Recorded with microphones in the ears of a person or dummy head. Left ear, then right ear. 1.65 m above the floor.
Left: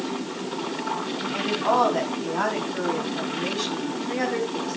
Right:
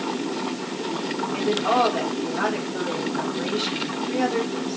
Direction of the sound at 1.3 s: 50° left (ahead or behind).